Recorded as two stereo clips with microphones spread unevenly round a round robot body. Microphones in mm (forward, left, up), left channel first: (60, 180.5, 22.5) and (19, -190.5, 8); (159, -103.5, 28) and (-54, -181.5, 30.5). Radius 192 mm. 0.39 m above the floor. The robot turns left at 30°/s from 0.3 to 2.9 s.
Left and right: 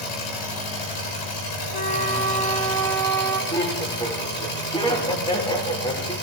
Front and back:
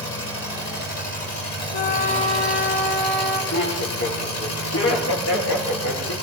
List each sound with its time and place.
0.0 s an engine running: 100° left, 8.5 m; by 6.2 s 20° left, 8.5 m
1.7 s a flute: 35° left, 5 m; by 3.4 s straight ahead, 5 m
3.5 s laughter: 5° left, 8.5 m